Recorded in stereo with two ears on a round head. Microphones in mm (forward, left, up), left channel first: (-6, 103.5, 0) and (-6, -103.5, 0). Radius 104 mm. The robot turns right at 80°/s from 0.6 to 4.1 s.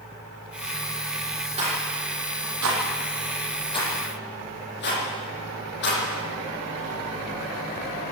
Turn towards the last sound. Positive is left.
turn(degrees=50)  # may be behind; listen again after turning